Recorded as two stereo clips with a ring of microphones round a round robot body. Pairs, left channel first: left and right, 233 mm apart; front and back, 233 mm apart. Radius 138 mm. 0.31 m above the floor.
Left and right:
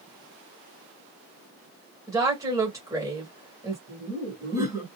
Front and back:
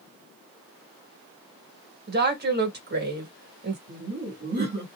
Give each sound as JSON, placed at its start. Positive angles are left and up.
{"t": 2.1, "sound": "a woman speaking", "azimuth_deg": -160, "distance_m": 1.5}
{"t": 3.9, "sound": "laughter", "azimuth_deg": -160, "distance_m": 1.7}